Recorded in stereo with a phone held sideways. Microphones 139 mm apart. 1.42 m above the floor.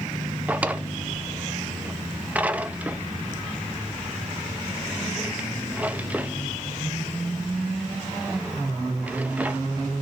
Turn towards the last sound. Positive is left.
turn(degrees=-10)  # may be behind; listen again after turning